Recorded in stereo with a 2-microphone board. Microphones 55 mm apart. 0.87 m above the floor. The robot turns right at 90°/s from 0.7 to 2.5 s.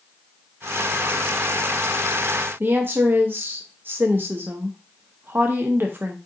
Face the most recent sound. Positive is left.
turn(degrees=-40)  # may be behind; listen again after turning